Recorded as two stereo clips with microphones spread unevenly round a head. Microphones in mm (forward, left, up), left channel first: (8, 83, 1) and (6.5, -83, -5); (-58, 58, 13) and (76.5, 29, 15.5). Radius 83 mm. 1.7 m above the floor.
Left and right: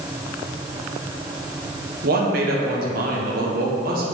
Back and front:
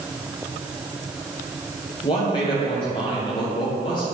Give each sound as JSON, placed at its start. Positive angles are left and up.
{"t": 2.0, "sound": "a man speaking", "azimuth_deg": -130, "distance_m": 1.2}